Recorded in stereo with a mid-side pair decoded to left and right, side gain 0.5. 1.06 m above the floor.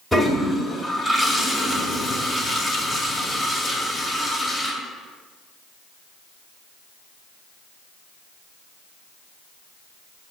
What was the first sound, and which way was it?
A toilet flushing, 5° right.